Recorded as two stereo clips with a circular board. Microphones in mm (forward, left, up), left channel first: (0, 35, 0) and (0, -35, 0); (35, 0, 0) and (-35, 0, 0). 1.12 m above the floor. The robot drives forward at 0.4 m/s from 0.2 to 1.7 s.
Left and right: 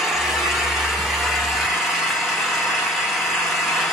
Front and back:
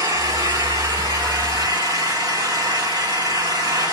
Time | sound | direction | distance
0.0 | an engine running | 175° right | 2.5 m